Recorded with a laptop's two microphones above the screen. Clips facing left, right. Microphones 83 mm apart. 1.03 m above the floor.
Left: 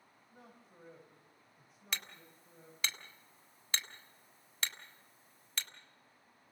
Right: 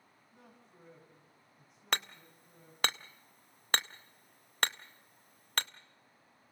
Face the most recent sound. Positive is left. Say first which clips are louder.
# right 8 dB
turn(degrees=-60)  # may be behind; listen again after turning